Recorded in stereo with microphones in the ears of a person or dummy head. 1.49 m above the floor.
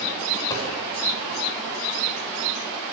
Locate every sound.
0.5 s a dropped coin: 15° left (ahead or behind), 5 m